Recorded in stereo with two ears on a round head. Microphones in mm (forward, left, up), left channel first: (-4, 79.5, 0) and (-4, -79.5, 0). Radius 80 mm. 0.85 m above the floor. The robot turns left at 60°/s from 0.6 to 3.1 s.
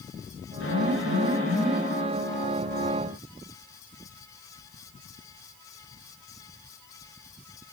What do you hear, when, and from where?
0.6 s an alarm: 95° left, 8 m; by 1.8 s 20° left, 8 m